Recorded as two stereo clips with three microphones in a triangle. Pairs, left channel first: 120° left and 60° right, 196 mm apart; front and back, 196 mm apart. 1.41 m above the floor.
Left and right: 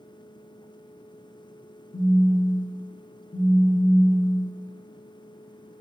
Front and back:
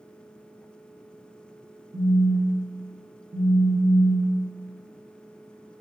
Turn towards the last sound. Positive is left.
turn(degrees=165)